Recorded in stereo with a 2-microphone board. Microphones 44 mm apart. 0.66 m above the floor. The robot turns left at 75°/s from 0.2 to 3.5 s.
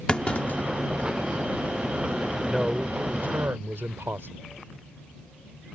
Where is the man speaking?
Straight ahead; by 4.4 s 80° right.